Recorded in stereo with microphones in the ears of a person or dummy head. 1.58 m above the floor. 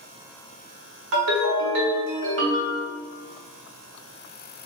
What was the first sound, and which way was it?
A ringtone, 65° right (ahead or behind).